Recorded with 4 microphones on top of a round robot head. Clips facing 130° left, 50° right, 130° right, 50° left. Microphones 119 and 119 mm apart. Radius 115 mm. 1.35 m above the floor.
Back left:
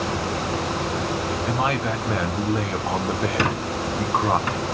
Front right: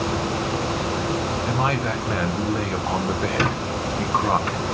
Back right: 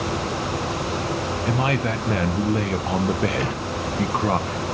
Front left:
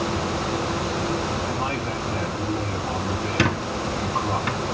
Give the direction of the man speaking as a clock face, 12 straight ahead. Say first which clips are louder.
Back left 1 dB, back right 4 dB; 5 o'clock.